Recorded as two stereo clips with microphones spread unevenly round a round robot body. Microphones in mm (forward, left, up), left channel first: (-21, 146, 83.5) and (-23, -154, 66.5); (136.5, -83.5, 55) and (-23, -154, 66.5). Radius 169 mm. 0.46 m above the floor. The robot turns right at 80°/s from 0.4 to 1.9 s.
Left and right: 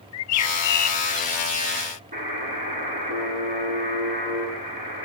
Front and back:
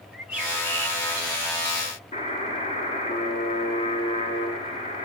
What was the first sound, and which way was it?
A bird, 115° left.